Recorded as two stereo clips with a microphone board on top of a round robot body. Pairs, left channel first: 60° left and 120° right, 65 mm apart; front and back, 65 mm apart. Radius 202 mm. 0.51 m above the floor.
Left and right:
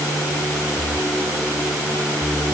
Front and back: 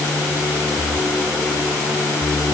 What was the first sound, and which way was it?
Only background noise.